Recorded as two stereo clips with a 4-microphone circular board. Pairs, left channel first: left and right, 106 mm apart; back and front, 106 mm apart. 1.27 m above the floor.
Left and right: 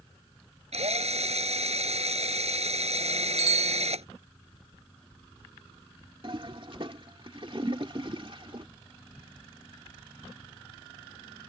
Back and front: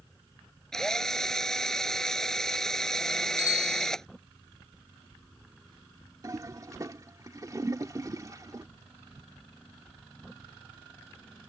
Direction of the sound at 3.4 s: 120° right.